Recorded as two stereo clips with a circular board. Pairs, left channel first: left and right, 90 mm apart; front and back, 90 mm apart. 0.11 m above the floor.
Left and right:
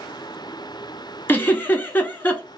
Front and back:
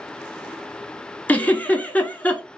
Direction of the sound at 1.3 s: 50° left.